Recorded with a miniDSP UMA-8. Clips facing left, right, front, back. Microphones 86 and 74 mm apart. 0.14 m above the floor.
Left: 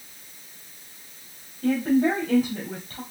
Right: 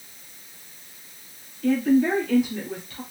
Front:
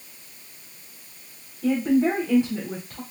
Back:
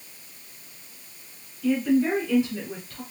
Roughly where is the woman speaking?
Ahead left.